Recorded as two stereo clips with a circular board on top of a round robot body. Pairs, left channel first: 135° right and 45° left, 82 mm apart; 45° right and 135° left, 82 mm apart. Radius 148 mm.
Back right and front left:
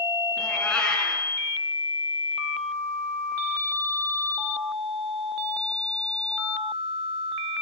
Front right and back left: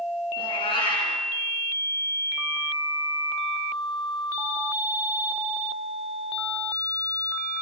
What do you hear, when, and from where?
0.4 s a cat meowing: 55° right, 5.5 m